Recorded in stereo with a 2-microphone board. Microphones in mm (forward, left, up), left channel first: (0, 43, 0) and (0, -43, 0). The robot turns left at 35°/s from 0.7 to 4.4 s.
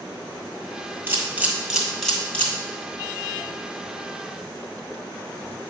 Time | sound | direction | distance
1.1 | a camera shutter | 25° right (ahead or behind) | 2 m